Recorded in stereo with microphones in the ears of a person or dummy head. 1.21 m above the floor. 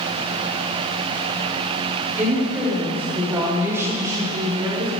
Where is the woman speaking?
5° right (ahead or behind), 5 m; by 4.9 s 25° right (ahead or behind), 2 m.